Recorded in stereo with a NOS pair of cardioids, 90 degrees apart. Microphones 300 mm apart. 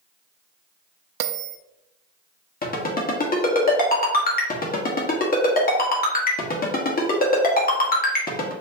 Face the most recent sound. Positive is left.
turn(degrees=30)